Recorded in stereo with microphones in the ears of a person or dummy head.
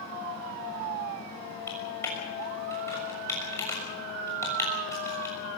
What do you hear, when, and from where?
1.7 s typing on a keyboard: 20° left (ahead or behind), 6.5 m